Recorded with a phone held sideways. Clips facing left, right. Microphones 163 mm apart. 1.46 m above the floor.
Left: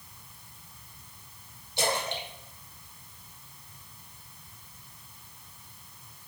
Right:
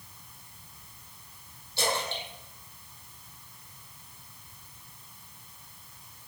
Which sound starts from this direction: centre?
A splash, at 1.8 s.